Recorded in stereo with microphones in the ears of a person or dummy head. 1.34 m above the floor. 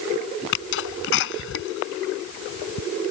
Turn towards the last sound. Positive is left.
turn(degrees=70)  # may be behind; listen again after turning